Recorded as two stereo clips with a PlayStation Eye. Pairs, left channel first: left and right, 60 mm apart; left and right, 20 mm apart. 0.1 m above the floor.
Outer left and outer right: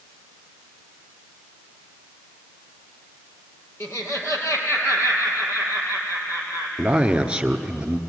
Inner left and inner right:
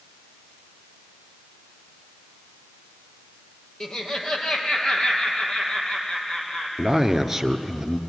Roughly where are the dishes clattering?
No dishes clattering in this recording.